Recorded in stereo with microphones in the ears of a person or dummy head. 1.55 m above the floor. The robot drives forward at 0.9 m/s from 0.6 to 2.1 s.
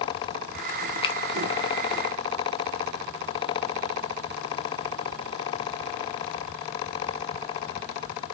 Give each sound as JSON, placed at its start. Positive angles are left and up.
{"t": 1.0, "sound": "a finger snap", "side_deg": 30, "distance_m": 0.5}